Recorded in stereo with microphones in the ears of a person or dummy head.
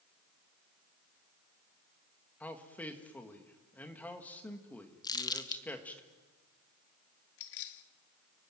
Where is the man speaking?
5° left (ahead or behind), 2.0 m.